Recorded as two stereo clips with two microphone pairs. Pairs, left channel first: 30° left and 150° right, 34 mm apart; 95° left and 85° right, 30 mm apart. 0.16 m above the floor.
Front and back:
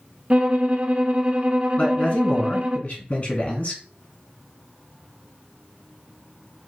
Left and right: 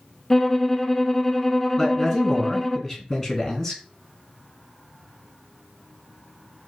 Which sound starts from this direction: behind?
A violin, at 0.3 s.